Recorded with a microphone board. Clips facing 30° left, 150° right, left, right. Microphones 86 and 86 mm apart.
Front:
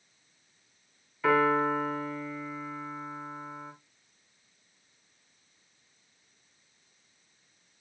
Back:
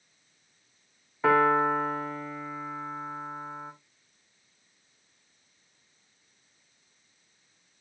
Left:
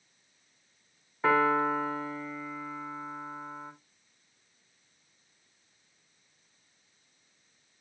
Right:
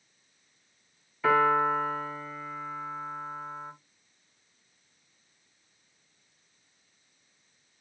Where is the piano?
150° left, 5 m.